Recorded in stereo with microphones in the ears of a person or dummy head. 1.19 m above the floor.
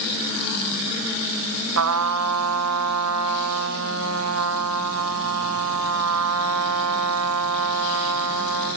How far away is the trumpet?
About 2.5 m.